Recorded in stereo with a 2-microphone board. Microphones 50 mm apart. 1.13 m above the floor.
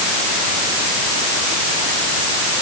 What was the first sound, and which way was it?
Only background noise.